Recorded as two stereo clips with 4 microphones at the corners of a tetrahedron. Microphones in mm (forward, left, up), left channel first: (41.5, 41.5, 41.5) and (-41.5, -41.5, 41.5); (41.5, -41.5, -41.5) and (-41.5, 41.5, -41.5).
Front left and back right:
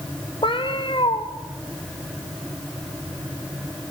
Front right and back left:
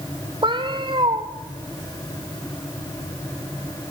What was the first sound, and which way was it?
A cat meowing, 90° left.